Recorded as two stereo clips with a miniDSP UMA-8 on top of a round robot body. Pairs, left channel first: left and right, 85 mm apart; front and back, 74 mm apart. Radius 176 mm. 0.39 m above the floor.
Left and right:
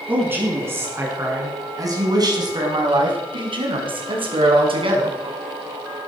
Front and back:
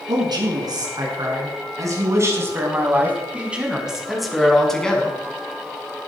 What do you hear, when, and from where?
0.1 s a man speaking: 160° right, 6 m; by 5.2 s 75° right, 5 m